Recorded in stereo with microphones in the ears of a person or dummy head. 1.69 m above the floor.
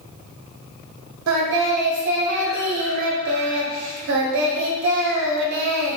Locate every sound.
1.3 s singing: 70° right (ahead or behind), 0.7 m